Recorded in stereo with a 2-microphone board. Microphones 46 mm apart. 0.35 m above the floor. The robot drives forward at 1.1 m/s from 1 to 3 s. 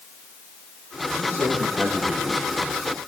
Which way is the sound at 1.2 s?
30° right (ahead or behind).